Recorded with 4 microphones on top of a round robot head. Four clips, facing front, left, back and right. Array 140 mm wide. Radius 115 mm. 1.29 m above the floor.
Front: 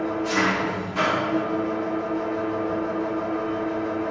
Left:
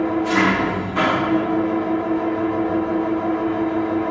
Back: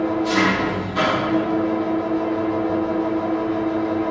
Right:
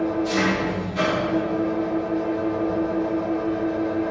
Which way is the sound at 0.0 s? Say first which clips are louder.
Left 4 dB, back 4 dB; 115° left.